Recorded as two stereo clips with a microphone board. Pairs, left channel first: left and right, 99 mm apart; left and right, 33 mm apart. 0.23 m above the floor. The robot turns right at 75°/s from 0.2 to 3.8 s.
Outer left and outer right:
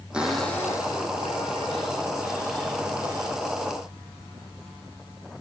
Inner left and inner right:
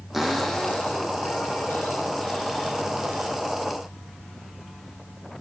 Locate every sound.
0.1 s a cupboard door: 10° right, 4.5 m; by 3.3 s 135° right, 4.5 m